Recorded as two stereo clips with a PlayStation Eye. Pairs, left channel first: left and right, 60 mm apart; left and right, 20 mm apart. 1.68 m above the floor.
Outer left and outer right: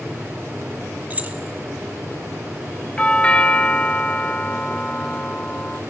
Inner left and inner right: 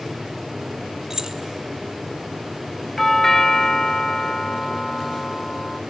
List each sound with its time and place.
1.1 s keys jangling: 30° right (ahead or behind), 1.1 m
3.0 s a doorbell: 15° left (ahead or behind), 0.6 m